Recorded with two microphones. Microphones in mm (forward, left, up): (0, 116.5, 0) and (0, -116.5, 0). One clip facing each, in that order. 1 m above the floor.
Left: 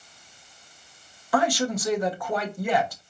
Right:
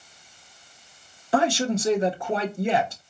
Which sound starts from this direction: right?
A man speaking, at 1.3 s.